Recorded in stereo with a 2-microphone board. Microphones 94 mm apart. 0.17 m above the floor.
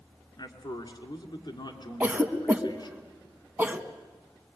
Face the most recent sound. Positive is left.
turn(degrees=-20)  # may be behind; listen again after turning